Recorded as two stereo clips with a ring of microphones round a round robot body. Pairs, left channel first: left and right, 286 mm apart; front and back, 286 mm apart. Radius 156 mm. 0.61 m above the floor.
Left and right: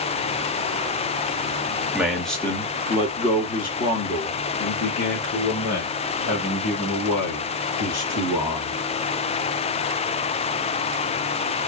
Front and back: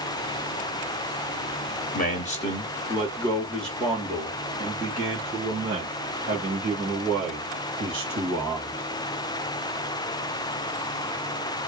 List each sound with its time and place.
1.9 s a man speaking: 10° right, 1.3 m; by 8.8 s 120° left, 3.5 m